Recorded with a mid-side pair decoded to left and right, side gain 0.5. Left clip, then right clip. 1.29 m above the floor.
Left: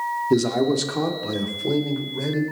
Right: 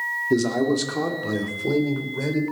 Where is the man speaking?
10° left, 2.5 m; by 2.4 s 10° right, 4 m.